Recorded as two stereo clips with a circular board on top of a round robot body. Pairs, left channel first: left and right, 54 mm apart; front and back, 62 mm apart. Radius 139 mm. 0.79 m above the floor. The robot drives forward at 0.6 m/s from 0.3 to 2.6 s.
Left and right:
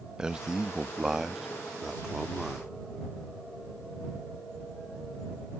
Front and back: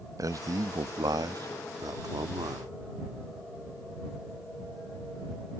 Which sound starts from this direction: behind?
A man speaking, at 0.2 s.